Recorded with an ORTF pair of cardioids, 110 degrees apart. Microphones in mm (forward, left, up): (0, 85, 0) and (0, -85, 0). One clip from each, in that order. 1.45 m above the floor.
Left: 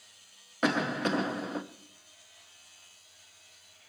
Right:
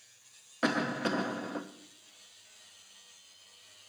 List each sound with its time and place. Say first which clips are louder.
0.6 s a cough: left 2 dB; 10° left, 0.7 m